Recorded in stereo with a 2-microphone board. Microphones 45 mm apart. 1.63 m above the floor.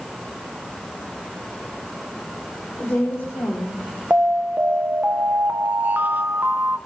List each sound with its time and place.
2.8 s a woman speaking: 65° left (ahead or behind), 6.5 m
4.1 s an alarm: 45° right (ahead or behind), 1.6 m